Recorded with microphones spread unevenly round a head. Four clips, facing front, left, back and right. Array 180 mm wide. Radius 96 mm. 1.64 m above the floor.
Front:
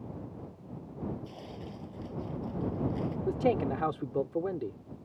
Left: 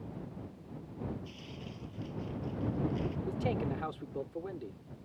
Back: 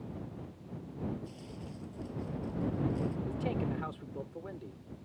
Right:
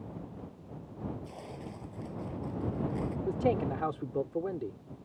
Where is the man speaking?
30° right.